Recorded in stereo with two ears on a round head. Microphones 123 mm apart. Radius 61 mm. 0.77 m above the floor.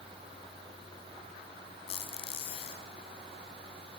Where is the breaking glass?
I don't hear breaking glass.